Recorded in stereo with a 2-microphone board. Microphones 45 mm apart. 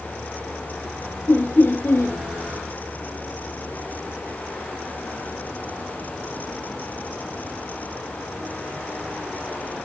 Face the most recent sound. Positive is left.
turn(degrees=55)  # may be behind; listen again after turning